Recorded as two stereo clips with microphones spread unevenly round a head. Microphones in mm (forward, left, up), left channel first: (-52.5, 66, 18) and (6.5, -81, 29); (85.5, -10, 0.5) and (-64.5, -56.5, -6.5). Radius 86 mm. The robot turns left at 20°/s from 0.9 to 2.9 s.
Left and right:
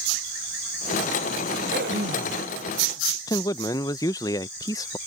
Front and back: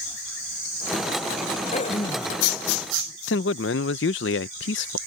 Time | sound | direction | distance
1.7 | throat clearing | 30° right | ?
3.3 | a man speaking | 40° left | ?